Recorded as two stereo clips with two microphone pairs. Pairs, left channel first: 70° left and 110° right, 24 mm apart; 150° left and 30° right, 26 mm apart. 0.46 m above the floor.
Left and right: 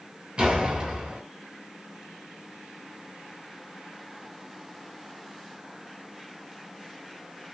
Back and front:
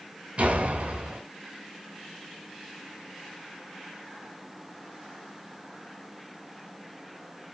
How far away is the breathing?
No breathing in this recording.